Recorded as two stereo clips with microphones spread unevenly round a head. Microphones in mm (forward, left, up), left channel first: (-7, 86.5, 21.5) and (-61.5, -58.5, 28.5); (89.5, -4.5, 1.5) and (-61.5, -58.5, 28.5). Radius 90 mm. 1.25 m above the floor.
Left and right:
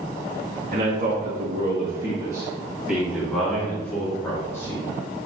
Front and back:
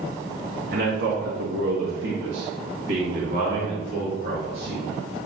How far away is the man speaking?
About 1.9 m.